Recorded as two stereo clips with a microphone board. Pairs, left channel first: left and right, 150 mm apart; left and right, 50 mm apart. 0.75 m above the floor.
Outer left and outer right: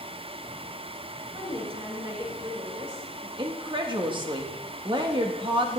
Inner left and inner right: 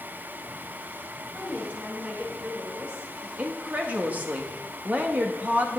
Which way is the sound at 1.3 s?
40° right (ahead or behind).